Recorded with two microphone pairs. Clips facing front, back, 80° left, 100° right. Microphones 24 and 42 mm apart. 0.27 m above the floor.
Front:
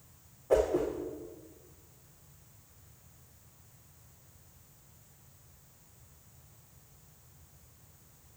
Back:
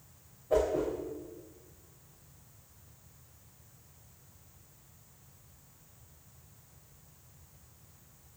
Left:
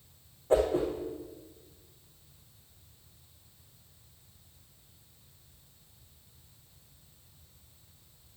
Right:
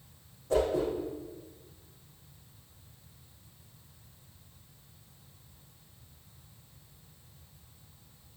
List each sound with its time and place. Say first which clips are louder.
0.5 s a whoosh: front 1 dB, left 2 dB; 25° left, 4.5 m